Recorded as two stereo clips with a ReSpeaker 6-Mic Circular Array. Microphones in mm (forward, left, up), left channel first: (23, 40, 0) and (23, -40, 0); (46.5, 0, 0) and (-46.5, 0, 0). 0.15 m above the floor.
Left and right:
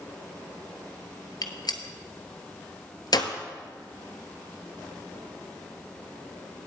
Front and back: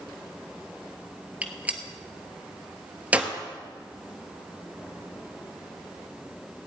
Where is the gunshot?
110° left, 1.3 m.